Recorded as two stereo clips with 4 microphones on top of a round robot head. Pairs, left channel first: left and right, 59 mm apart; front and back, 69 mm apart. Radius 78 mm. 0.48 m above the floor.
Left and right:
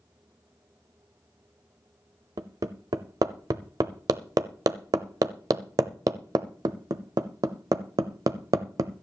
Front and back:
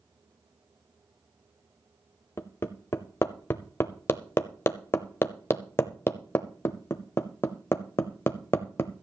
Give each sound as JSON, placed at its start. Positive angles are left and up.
{"t": 2.4, "sound": "hammering", "azimuth_deg": -60, "distance_m": 0.8}